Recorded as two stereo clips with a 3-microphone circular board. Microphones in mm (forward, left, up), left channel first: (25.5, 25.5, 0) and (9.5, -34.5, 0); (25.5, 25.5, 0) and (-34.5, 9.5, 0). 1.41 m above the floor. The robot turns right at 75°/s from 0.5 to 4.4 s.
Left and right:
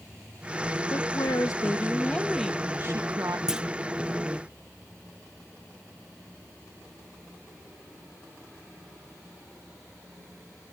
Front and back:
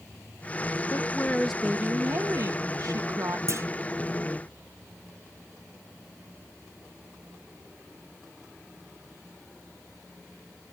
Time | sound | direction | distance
0.9 | a woman speaking | 60° left | 1.8 m
3.5 | a clunk | straight behind | 0.8 m